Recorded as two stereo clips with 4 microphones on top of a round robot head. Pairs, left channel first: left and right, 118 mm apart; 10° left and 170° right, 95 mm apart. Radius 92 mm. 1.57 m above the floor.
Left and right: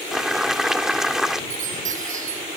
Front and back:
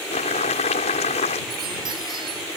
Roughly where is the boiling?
Ahead.